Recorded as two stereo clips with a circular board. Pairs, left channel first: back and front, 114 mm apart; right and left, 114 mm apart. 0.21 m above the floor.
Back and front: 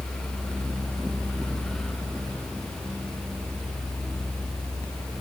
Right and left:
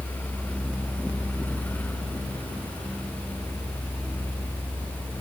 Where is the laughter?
No laughter in this recording.